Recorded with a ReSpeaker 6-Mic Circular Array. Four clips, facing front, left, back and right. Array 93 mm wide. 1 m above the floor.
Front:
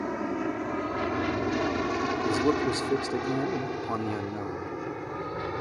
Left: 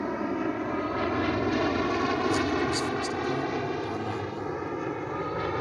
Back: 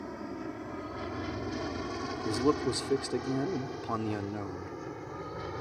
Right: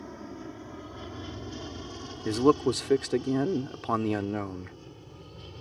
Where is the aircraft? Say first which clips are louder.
Left 12 dB, front 9 dB; 50° left; by 5.6 s 65° left.